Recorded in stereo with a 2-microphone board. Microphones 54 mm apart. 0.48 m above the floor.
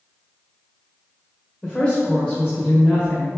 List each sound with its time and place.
1.6 s a woman speaking: 20° left (ahead or behind), 1.6 m